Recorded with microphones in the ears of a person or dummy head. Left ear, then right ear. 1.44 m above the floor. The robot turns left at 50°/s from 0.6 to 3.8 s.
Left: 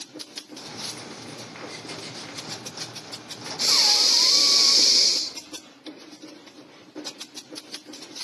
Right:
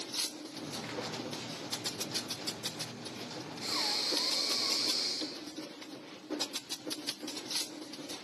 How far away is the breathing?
About 0.5 m.